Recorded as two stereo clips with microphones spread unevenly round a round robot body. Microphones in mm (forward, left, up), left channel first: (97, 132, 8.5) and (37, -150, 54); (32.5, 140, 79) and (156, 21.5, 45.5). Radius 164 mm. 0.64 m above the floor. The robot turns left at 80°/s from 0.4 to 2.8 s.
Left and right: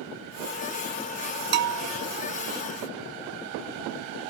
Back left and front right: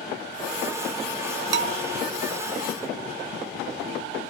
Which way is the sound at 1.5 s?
40° right.